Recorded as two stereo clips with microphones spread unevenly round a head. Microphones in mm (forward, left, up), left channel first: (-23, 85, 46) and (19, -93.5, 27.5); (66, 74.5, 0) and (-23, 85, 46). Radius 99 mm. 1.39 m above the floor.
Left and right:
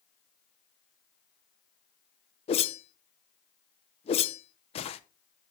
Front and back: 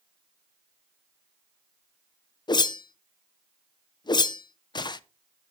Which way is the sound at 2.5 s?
50° left.